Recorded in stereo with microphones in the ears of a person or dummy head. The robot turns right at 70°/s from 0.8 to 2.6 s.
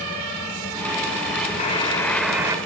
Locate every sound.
1.6 s a buzzer: 135° left, 1.8 m; by 2.6 s 160° right, 1.8 m